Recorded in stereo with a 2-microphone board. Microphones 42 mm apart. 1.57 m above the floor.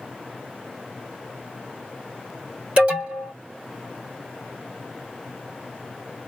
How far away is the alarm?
About 2 m.